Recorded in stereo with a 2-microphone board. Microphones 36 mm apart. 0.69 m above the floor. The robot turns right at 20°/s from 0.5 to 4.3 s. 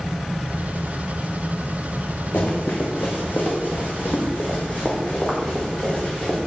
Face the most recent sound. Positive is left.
turn(degrees=30)  # may be behind; listen again after turning